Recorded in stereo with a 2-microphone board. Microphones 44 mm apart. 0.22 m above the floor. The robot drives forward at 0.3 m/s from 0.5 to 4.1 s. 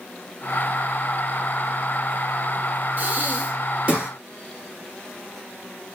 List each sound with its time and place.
3.0 s breathing: 40° right (ahead or behind), 0.7 m; by 4.1 s 30° right (ahead or behind), 0.9 m